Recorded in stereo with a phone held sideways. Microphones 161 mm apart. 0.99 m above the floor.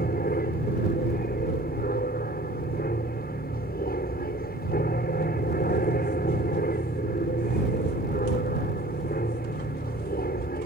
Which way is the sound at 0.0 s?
65° left (ahead or behind).